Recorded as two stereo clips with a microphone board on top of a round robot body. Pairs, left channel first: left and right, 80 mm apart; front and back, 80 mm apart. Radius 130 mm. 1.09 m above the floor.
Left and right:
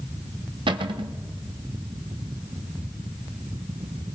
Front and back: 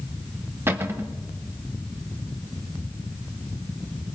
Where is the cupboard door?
115° right, 0.7 m.